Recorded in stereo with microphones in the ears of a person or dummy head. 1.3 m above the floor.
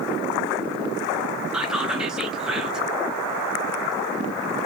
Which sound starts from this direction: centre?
Whispering, at 1.5 s.